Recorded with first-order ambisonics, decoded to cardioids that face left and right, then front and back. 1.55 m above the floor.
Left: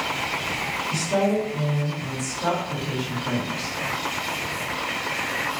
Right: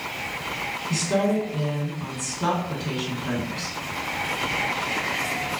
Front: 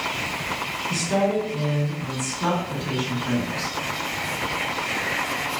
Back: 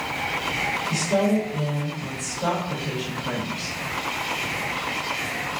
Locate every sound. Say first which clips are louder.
0.9 s a woman speaking: even, front 2 dB; 65° right, 1.6 m